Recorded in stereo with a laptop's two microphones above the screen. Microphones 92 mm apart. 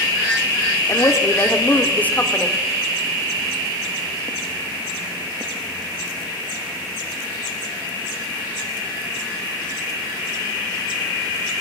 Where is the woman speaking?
35° left (ahead or behind), 2.5 m; by 2.6 s 10° left (ahead or behind), 3 m.